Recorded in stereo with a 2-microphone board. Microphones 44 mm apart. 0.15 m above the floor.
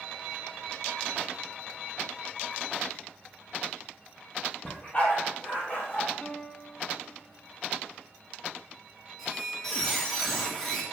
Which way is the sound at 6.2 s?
50° left (ahead or behind).